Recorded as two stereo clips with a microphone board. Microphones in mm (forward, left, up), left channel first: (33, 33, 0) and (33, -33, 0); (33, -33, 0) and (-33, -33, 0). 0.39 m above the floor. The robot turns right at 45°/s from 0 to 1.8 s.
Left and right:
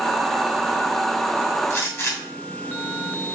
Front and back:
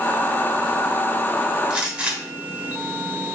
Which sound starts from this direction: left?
A gunshot, at 1.7 s.